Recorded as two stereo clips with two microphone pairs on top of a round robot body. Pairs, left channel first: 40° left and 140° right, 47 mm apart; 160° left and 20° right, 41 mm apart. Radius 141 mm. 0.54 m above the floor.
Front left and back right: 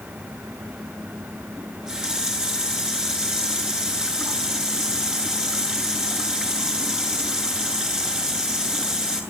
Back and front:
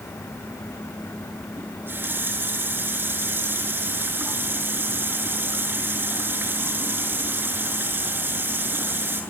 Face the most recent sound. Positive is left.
turn(degrees=-65)